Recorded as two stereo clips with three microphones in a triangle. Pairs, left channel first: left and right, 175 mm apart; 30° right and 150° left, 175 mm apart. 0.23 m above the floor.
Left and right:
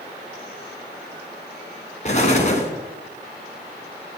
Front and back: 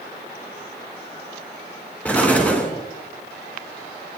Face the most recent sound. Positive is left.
turn(degrees=50)